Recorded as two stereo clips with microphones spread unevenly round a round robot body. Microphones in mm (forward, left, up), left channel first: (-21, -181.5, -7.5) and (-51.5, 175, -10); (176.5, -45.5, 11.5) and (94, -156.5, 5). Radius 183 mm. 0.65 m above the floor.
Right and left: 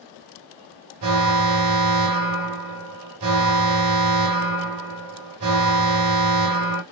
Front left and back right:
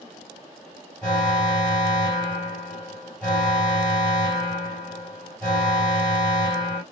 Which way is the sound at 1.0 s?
135° left.